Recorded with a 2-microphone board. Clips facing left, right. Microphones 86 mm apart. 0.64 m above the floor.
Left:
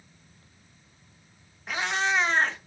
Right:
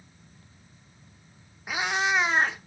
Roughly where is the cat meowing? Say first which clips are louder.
Right 1 dB; centre.